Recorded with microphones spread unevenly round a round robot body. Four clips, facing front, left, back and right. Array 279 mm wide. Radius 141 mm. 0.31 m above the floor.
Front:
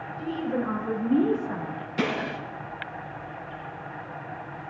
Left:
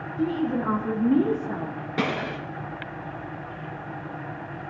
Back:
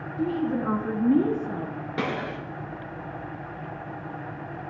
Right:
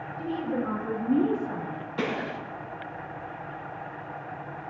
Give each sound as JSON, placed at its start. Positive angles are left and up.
{"t": 0.2, "sound": "a woman speaking", "azimuth_deg": 135, "distance_m": 5.0}
{"t": 2.0, "sound": "a gunshot", "azimuth_deg": 125, "distance_m": 5.5}